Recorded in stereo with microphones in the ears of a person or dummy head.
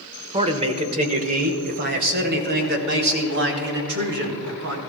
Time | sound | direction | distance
0.3 | a man speaking | 25° right (ahead or behind) | 1.3 m